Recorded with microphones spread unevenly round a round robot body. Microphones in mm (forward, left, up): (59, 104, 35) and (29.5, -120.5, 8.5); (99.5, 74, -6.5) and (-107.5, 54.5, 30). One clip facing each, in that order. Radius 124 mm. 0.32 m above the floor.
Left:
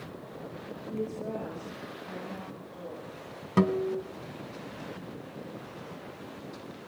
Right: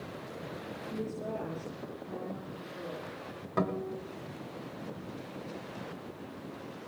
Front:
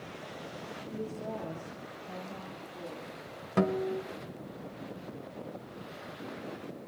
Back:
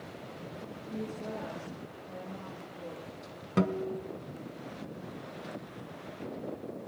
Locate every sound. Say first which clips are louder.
0.9 s a woman speaking: left 3 dB, even; 30° right, 7.5 m; by 3.1 s 20° right, 8.5 m
3.6 s a guitar: left 7 dB, front 1 dB; 80° left, 1.5 m